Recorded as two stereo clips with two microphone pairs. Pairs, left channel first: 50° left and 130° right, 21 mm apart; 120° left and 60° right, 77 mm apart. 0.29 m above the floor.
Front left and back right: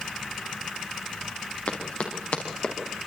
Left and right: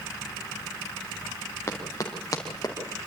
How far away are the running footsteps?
About 5.5 m.